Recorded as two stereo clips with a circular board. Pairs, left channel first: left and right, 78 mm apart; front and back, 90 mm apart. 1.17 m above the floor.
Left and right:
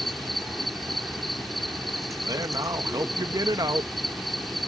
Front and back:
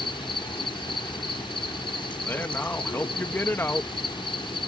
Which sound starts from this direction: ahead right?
A man speaking, at 2.2 s.